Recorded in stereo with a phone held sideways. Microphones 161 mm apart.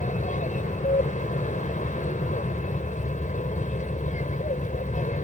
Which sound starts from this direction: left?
An aircraft, at 0.0 s.